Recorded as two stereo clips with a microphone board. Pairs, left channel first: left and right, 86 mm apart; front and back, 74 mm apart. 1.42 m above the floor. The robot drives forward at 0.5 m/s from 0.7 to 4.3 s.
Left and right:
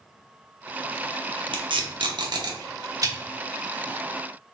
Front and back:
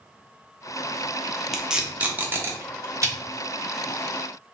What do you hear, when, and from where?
1.5 s tape being pulled: 90° right, 0.7 m; by 3.1 s 140° right, 1.1 m